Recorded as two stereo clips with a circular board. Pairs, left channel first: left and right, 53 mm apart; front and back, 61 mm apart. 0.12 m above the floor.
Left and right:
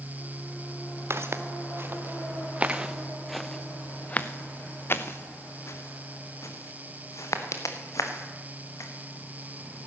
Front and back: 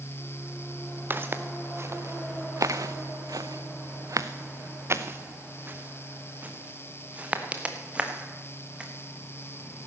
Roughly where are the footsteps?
Behind right.